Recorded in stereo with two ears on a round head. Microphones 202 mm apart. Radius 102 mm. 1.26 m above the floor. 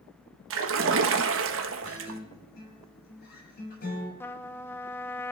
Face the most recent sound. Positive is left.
turn(degrees=10)  # may be behind; listen again after turning